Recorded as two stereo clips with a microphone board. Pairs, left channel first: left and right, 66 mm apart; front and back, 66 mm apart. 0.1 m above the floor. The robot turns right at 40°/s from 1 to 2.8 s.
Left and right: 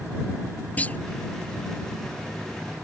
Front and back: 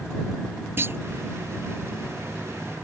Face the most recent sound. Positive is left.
turn(degrees=-140)